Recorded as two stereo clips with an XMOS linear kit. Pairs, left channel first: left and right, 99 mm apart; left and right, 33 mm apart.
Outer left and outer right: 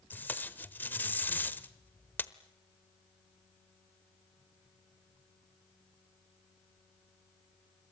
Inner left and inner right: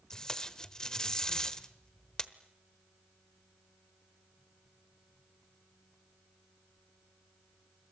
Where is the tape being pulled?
20° left (ahead or behind), 1.0 m.